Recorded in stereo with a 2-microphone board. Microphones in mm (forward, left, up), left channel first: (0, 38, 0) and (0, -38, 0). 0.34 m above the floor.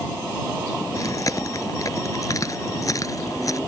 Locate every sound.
0.9 s chewing: 45° left (ahead or behind)